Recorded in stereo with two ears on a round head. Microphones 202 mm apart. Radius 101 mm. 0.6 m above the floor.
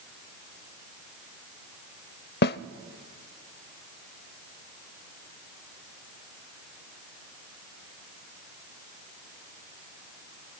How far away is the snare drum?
About 0.5 m.